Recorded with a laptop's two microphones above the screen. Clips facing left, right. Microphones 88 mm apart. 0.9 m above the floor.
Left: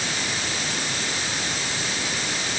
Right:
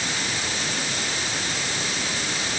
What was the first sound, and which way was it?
Only background noise.